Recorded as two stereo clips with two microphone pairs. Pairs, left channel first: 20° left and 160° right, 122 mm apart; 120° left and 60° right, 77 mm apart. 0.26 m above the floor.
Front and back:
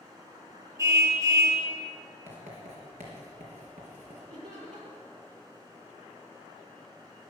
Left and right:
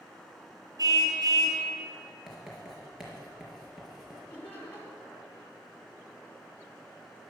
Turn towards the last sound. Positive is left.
turn(degrees=-170)